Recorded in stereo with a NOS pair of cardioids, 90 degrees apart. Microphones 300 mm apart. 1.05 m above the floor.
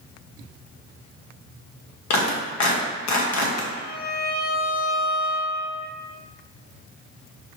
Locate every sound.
2.1 s a clap: 65° left, 1.2 m
3.7 s a violin: 30° left, 0.7 m